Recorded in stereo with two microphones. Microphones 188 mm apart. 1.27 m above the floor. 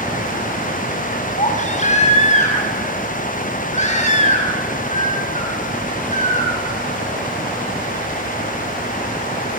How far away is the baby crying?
About 5 m.